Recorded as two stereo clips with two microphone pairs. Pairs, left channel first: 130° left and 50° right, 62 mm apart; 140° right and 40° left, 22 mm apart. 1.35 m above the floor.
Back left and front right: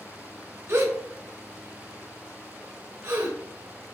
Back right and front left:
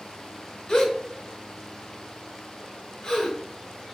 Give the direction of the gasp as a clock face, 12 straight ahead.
3 o'clock.